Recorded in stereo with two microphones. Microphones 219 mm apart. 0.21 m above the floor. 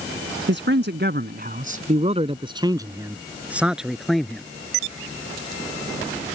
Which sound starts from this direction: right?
A man speaking, at 0.5 s.